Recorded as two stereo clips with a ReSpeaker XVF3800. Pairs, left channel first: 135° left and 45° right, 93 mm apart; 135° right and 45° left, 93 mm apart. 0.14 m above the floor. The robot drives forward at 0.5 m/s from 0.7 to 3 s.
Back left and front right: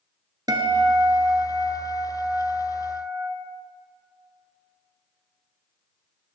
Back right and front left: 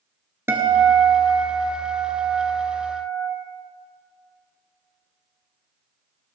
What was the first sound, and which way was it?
A guitar, 15° right.